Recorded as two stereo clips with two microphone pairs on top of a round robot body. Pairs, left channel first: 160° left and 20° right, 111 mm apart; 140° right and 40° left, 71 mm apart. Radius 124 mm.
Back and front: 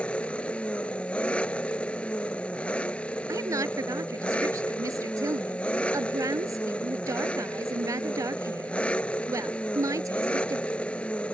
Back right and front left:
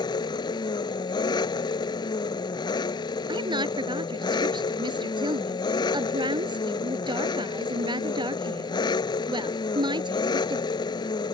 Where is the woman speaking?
45° left.